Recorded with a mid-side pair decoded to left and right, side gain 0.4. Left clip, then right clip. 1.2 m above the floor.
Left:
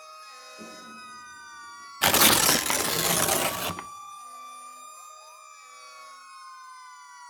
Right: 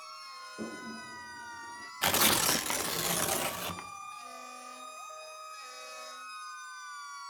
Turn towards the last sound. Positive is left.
turn(degrees=55)